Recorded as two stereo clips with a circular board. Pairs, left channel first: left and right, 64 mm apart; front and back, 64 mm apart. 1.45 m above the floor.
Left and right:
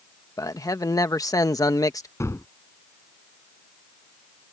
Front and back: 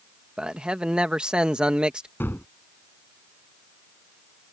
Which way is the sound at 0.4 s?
105° left.